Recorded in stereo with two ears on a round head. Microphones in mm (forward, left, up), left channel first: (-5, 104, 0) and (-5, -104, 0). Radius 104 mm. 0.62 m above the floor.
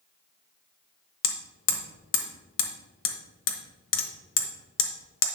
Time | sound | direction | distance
1.2 | hammering | 60° left (ahead or behind) | 1.1 m